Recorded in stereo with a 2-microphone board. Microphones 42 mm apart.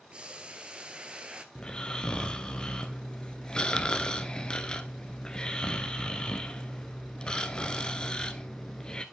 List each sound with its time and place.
0.1 s boiling: 25° right (ahead or behind), 0.9 m
1.6 s snoring: 20° left (ahead or behind), 0.7 m